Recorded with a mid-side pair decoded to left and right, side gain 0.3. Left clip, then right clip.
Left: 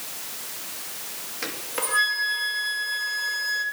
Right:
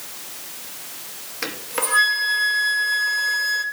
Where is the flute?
60° right, 2 m.